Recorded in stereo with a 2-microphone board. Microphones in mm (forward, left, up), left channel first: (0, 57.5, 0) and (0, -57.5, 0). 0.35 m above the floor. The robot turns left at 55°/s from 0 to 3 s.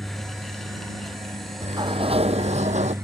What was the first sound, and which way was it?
A helicopter, 5° left.